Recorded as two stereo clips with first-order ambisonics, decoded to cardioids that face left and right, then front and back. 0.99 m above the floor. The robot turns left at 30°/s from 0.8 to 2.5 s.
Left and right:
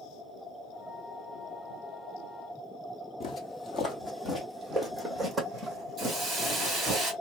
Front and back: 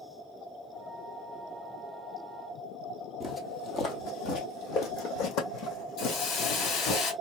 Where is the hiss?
35° right, 2 m.